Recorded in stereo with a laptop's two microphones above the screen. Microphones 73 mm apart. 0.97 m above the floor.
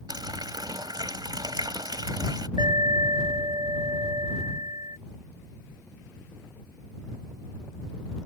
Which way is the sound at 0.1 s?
70° right (ahead or behind).